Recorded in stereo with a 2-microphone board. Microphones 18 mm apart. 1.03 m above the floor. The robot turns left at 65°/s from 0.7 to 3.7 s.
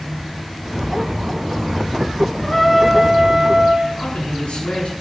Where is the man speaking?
85° left, 9.5 m.